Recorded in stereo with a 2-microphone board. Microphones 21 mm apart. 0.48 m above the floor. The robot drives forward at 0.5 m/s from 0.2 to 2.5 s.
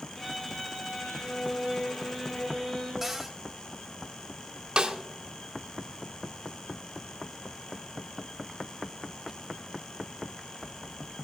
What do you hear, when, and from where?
0.1 s a violin: 20° left (ahead or behind), 7 m; by 2.9 s 15° left (ahead or behind), 8 m
3.0 s a cupboard door: 5° right (ahead or behind), 1.2 m
4.8 s a snare drum: 45° right (ahead or behind), 0.9 m